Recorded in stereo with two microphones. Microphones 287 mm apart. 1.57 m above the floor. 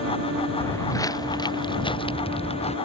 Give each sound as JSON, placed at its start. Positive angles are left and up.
{"t": 0.6, "sound": "footsteps", "side_deg": 10}